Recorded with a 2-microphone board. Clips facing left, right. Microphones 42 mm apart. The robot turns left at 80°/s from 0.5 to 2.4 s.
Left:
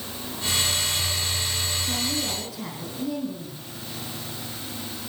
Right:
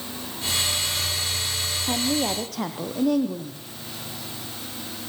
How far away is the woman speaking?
About 4 m.